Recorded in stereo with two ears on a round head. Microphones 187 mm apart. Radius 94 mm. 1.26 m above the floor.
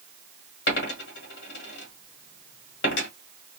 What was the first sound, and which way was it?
A dropped coin, 55° left (ahead or behind).